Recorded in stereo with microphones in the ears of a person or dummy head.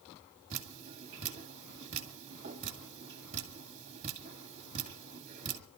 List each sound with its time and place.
0.5 s dripping: 35° right (ahead or behind), 2.0 m